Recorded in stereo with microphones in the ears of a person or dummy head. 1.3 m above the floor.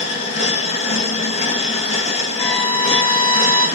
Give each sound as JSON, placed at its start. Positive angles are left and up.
{"t": 0.0, "sound": "a machine running", "side_deg": 30, "distance_m": 2.0}
{"t": 2.4, "sound": "a violin", "side_deg": 10, "distance_m": 7.0}